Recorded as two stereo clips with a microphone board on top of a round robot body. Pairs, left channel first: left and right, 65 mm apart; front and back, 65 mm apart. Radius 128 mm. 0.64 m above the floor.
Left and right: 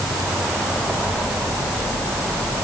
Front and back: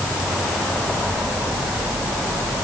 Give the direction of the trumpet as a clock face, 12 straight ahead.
No trumpet in this recording.